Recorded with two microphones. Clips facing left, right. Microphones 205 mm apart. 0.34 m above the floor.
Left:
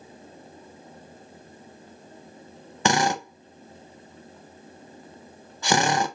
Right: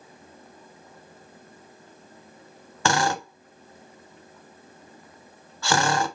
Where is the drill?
20° left (ahead or behind), 0.7 m.